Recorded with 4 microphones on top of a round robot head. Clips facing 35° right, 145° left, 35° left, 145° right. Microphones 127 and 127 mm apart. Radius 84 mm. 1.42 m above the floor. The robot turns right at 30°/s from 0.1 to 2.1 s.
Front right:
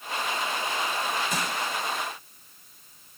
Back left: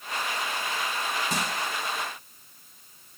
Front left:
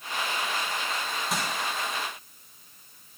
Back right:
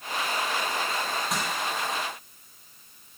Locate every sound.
1.3 s crushing: 125° left, 3 m; by 1.5 s 130° left, 3 m